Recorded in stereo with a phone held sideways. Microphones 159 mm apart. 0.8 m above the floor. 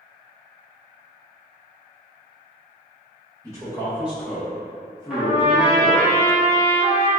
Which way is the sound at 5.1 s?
5° right (ahead or behind).